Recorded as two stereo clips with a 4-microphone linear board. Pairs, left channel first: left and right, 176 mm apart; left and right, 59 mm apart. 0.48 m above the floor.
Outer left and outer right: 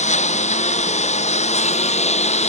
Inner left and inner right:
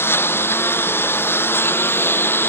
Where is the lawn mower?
40° left (ahead or behind).